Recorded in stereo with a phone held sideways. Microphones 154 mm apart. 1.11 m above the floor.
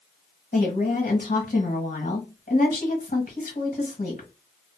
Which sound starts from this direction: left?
A woman speaking, at 0.5 s.